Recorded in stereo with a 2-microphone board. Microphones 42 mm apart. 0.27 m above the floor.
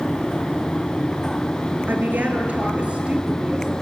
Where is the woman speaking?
50° right (ahead or behind), 4 m; by 3.7 s 20° right (ahead or behind), 5.5 m.